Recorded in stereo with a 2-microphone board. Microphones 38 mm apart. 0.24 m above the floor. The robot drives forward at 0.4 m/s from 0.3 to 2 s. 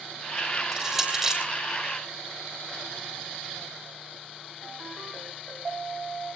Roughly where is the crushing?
Centre.